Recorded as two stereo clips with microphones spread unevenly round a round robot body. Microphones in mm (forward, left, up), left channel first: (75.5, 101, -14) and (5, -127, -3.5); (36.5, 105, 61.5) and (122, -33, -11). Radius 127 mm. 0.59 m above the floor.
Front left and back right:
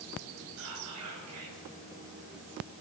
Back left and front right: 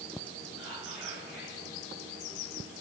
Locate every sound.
0.6 s whispering: 140° right, 3 m